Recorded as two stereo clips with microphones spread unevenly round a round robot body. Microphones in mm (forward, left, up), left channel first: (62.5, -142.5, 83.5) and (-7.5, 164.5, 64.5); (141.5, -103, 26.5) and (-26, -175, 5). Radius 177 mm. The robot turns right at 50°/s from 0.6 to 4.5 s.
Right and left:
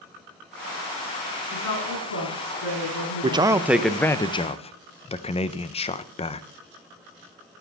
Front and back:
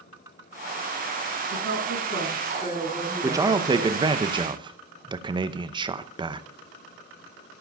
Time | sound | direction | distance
1.5 | a woman speaking | 165° right | 9 m
3.2 | a man speaking | 155° left | 0.6 m